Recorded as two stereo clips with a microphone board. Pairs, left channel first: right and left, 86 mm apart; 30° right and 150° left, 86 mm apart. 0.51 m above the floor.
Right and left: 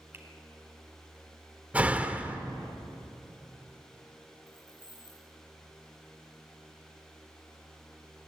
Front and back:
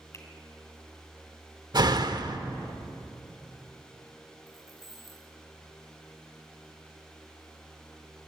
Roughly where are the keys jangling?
Behind right.